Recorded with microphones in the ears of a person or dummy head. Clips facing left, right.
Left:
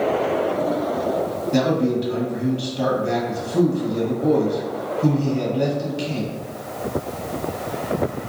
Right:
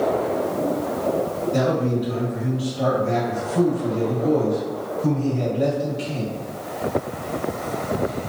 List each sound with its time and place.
1.5 s a man speaking: 70° left (ahead or behind), 1.2 m